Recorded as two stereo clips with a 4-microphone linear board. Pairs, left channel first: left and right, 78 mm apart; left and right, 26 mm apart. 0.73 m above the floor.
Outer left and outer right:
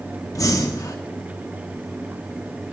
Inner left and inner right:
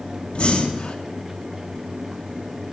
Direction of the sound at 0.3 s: 45° left (ahead or behind).